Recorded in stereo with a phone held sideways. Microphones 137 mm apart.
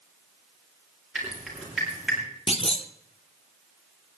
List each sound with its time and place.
1.1 s dripping: 5° right (ahead or behind), 7.5 m
2.5 s a clunk: 45° left (ahead or behind), 1.3 m